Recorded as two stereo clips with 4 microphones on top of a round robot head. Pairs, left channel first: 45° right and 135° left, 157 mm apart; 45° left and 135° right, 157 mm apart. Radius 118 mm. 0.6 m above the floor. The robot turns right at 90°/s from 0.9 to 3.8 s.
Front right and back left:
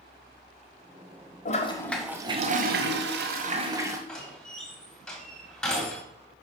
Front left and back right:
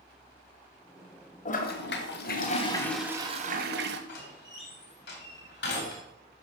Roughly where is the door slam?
Ahead left.